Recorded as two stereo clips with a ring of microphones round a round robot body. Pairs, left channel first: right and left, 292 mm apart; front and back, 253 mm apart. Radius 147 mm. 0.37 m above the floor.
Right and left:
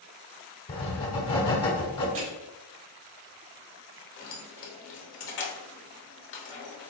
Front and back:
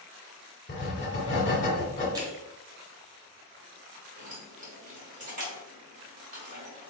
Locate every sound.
0.7 s writing: 30° right, 1.2 m
2.1 s crushing: 105° left, 1.5 m
4.2 s keys jangling: 125° right, 0.9 m